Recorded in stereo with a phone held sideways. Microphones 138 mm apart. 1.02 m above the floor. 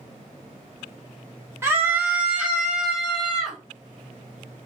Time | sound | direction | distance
1.6 | a scream | 20° right (ahead or behind) | 0.7 m